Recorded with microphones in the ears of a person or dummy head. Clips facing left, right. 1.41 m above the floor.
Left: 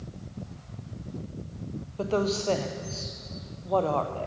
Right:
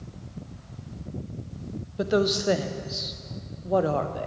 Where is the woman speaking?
20° right (ahead or behind), 0.6 m.